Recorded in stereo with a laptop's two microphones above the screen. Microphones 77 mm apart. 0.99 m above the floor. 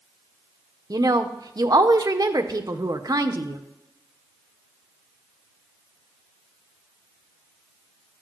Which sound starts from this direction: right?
A woman speaking, at 0.9 s.